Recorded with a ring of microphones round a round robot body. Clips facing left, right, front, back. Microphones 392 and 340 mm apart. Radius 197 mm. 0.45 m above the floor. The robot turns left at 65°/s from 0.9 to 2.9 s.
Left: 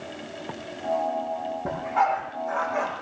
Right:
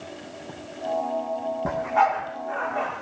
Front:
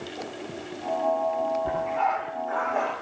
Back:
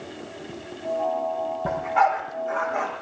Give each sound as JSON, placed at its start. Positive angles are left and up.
{"t": 1.6, "sound": "a dog barking", "azimuth_deg": -160, "distance_m": 7.0}